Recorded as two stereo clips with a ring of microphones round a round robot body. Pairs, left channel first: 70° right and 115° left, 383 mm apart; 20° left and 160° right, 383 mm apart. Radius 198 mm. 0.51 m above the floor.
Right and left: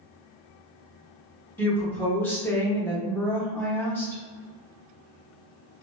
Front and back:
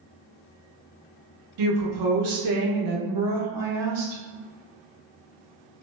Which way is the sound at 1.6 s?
150° right.